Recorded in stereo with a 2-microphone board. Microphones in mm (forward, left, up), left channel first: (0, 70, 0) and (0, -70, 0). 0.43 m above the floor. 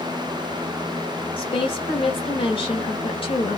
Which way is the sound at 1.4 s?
40° left (ahead or behind).